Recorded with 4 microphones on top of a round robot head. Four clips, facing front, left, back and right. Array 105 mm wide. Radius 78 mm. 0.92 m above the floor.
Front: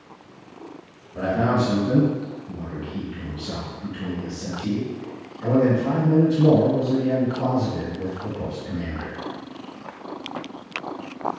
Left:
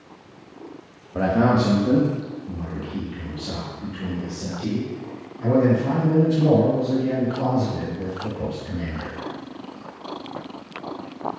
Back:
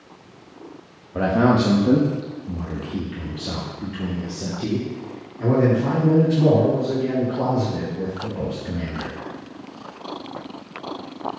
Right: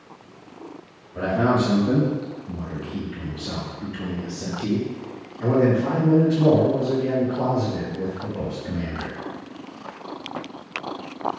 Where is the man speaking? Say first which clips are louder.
Left 2 dB, back 4 dB; 140° left, 1.1 m; by 9.1 s 140° right, 5 m.